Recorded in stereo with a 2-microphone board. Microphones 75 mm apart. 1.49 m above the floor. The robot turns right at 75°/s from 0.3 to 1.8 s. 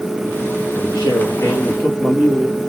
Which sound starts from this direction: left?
A man speaking, at 0.8 s.